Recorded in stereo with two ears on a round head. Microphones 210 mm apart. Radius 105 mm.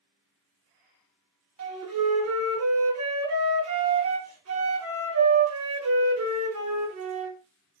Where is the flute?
70° right (ahead or behind), 0.8 m.